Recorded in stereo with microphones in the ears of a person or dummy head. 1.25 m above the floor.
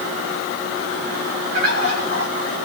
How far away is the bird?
About 4.5 m.